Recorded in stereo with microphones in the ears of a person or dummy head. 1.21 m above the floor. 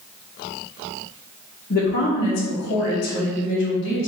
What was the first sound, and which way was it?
A woman speaking, 55° left (ahead or behind).